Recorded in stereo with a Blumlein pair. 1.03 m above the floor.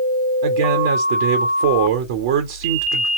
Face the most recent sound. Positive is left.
turn(degrees=-55)